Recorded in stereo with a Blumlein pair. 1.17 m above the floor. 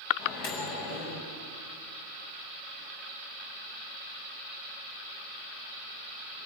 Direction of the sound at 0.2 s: 50° left.